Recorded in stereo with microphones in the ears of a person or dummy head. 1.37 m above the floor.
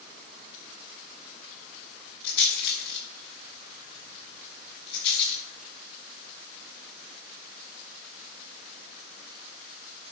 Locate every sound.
2.2 s a rattle: 55° left (ahead or behind), 5.5 m